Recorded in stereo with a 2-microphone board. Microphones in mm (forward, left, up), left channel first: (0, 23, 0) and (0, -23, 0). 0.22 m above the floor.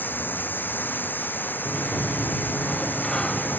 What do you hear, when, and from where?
0.0 s running water: 45° left (ahead or behind)
1.6 s a sliding door: 15° left (ahead or behind)